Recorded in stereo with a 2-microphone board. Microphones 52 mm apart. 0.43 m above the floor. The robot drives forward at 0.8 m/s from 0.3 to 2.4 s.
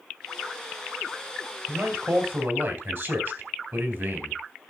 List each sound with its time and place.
1.7 s a man speaking: 50° right (ahead or behind), 2.5 m; by 4.4 s 55° right (ahead or behind), 2.5 m